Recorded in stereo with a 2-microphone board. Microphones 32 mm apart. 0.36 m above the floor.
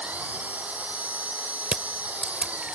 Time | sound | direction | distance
0.0 | an engine running | 55° right (ahead or behind) | ?
1.7 | crushing | 35° right (ahead or behind) | ?